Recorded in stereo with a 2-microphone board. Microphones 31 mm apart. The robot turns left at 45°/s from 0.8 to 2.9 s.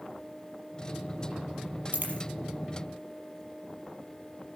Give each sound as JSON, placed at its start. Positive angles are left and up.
{"t": 1.9, "sound": "a dropped coin", "side_deg": -65, "distance_m": 5.0}